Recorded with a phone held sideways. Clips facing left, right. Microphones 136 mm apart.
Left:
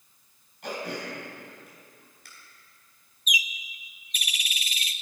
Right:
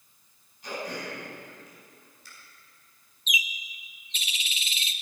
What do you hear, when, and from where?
0.6 s throat clearing: 90° left, 4.5 m
3.3 s a bird: 25° right (ahead or behind), 0.5 m